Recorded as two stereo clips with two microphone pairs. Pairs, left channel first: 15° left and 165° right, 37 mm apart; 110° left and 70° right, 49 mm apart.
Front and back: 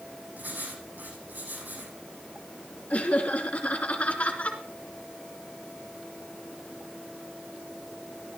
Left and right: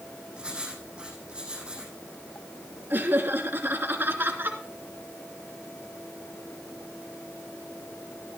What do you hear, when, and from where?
0.4 s writing: 140° right, 8 m
2.9 s laughter: 30° right, 2.5 m